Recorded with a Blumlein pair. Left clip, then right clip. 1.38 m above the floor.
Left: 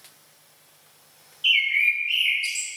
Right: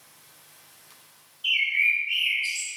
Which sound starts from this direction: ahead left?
A bird, at 1.4 s.